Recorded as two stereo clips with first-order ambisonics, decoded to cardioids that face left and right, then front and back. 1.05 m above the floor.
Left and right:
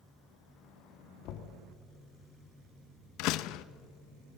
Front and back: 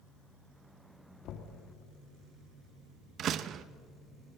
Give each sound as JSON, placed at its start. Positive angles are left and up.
{"t": 1.2, "sound": "knocking", "azimuth_deg": 50, "distance_m": 1.6}
{"t": 3.2, "sound": "a door slam", "azimuth_deg": 120, "distance_m": 0.6}